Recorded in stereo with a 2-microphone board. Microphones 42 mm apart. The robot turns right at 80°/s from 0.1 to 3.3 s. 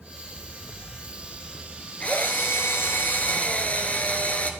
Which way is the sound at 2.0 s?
35° left.